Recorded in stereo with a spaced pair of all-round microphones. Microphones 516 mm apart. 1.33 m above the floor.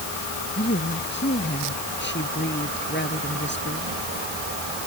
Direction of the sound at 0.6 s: 20° left (ahead or behind).